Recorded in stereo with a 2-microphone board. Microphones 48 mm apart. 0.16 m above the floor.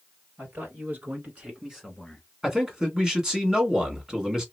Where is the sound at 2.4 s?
15° right (ahead or behind), 1.7 m.